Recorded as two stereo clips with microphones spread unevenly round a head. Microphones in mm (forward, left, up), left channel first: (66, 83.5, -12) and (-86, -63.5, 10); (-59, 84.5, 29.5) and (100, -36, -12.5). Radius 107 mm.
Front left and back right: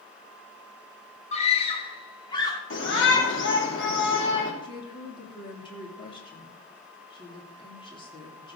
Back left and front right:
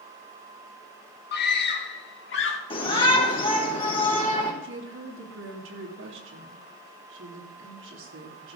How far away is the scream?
About 2 m.